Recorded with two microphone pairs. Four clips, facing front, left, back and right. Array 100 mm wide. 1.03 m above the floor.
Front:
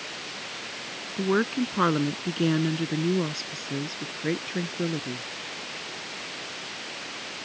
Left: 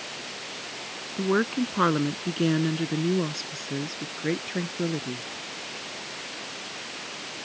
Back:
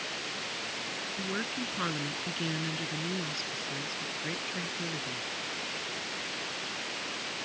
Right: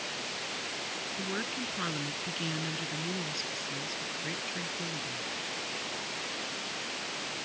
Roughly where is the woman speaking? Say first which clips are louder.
Left 14 dB, front 13 dB; ahead left.